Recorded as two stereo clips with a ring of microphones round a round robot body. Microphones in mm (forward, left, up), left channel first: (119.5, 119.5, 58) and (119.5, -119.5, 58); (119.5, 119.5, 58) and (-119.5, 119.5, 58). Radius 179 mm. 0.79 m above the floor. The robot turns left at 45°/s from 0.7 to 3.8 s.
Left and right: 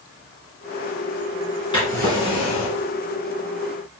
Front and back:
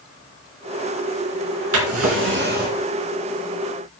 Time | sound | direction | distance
1.7 | a drawer | 165° left | 3 m